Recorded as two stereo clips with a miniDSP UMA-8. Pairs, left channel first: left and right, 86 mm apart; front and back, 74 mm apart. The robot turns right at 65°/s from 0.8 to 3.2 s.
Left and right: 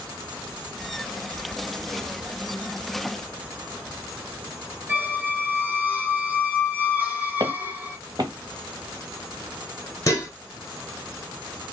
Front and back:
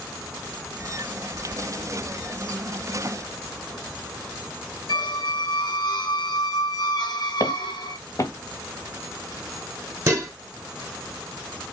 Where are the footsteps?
50° right, 2.5 m.